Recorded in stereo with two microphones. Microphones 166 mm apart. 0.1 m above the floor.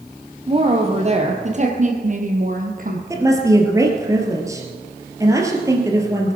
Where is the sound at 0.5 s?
35° right (ahead or behind), 2.5 m; by 3.0 s 60° right (ahead or behind), 3.5 m.